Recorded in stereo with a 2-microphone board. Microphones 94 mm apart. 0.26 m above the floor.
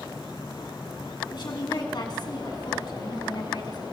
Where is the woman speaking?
55° left (ahead or behind), 2.5 m.